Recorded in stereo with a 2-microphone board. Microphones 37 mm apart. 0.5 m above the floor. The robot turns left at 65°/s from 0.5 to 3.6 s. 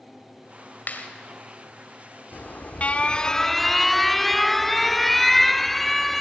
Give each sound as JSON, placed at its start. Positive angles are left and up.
{"t": 0.9, "sound": "a clap", "side_deg": 60, "distance_m": 2.5}
{"t": 2.3, "sound": "an alarm", "azimuth_deg": 90, "distance_m": 0.6}